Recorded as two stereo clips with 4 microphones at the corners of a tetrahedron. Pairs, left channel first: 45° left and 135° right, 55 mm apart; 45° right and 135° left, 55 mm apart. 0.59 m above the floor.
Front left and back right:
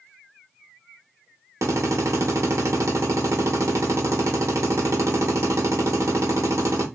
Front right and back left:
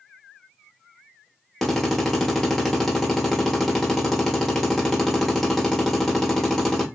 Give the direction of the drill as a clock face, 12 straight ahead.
4 o'clock.